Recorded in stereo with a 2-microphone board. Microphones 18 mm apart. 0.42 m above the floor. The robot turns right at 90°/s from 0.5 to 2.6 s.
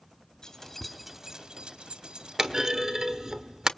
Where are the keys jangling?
40° left (ahead or behind), 1.9 m; by 2.6 s 30° right (ahead or behind), 1.9 m.